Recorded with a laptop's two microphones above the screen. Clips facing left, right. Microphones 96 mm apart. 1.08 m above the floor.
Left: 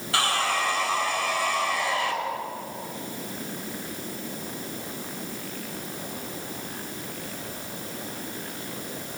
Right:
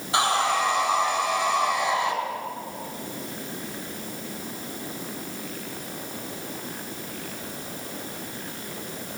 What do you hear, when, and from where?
0.1 s sawing: 20° right (ahead or behind), 4 m